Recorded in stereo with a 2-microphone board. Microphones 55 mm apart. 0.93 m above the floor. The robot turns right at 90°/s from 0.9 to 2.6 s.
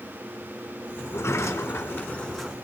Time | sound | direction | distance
1.0 | a sliding door | 55° left | 1.5 m